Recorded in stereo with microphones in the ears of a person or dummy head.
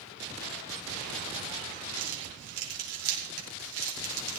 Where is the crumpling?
80° right, 4.5 m.